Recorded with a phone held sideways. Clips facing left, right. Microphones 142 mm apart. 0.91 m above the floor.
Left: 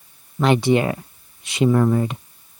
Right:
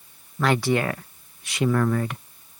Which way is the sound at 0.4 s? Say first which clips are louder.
Left 5 dB; 20° left (ahead or behind).